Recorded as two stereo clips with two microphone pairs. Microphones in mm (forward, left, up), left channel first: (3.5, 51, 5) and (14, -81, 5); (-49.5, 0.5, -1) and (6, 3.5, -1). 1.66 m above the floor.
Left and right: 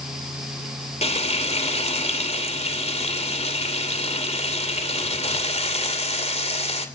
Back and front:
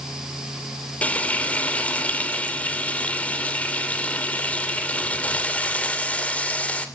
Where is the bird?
No bird in this recording.